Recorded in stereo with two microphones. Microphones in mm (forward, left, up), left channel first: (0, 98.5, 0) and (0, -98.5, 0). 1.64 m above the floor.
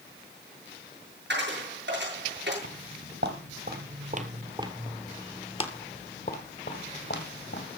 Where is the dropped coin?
65° right (ahead or behind), 7 m.